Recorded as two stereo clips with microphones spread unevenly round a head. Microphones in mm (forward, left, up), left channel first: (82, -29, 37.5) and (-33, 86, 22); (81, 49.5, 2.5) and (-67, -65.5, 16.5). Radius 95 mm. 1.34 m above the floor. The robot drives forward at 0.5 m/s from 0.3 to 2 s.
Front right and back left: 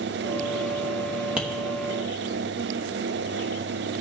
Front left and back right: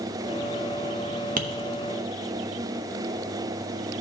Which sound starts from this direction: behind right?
Tapping, at 1.4 s.